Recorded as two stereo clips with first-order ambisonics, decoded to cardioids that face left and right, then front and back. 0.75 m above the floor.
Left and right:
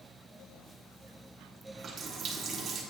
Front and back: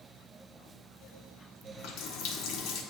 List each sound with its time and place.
1.6 s a running tap: 25° right, 1.0 m